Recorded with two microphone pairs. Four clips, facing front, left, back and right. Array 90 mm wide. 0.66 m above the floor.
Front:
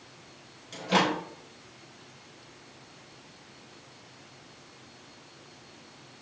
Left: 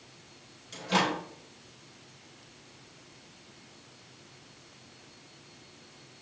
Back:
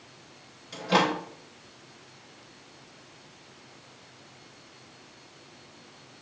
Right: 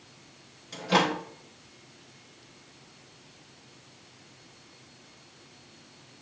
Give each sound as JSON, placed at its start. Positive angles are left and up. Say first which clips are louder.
{"t": 0.7, "sound": "a microwave", "louder": "right 3 dB, back 1 dB", "azimuth_deg": -130, "distance_m": 1.1}